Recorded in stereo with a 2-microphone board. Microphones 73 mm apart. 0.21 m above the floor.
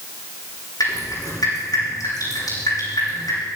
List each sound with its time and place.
0.8 s dripping: 65° left (ahead or behind), 8.5 m